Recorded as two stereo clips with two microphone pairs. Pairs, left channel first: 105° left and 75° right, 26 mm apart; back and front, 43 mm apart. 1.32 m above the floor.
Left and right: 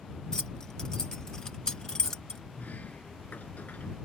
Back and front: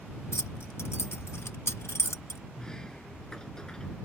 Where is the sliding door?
105° left.